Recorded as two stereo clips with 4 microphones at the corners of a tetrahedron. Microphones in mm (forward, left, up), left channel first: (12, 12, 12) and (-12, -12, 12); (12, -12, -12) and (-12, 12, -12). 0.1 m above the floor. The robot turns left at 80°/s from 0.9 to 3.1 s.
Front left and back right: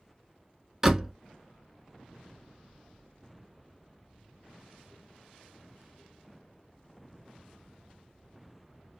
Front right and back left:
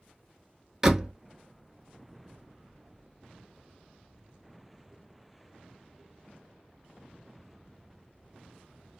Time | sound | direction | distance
0.8 | a door slam | 175° right | 0.8 m